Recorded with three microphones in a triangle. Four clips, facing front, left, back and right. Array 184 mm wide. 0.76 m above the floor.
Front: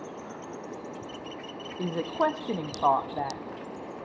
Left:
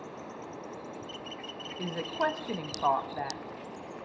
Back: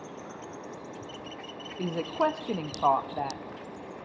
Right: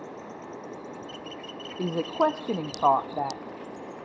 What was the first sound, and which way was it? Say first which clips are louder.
A woman speaking: right 7 dB, front 1 dB; 80° right.